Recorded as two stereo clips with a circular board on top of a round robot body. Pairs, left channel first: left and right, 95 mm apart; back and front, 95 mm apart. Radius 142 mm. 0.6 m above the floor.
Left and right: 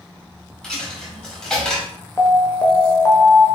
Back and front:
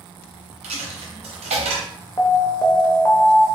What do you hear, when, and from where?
0.6 s a dropped coin: 5° left, 0.8 m
2.2 s an alarm: 140° left, 0.9 m